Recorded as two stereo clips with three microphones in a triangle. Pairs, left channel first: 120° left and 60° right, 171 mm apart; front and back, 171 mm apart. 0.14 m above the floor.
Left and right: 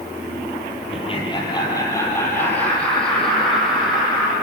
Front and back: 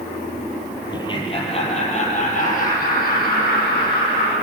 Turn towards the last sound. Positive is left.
turn(degrees=25)